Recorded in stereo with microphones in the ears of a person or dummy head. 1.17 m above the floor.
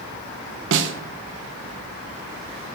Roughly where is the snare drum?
Right.